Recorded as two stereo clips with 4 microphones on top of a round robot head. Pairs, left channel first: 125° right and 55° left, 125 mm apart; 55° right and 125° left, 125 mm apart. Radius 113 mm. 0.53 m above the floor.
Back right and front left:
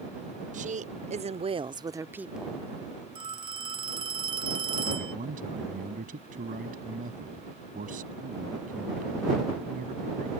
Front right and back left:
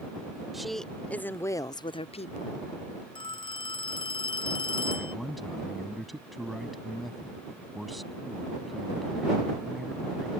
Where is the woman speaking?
40° left; by 2.7 s 45° right.